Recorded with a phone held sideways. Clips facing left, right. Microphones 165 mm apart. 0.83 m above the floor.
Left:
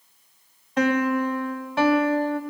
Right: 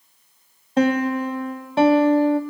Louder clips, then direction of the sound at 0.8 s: Right 2 dB; 30° right (ahead or behind).